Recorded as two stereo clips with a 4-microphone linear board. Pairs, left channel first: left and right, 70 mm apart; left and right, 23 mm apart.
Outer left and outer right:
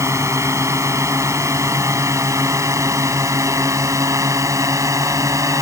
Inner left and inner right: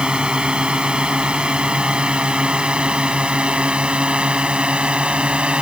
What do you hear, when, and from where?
0.0 s a drone: 45° right (ahead or behind); by 5.6 s 50° right (ahead or behind)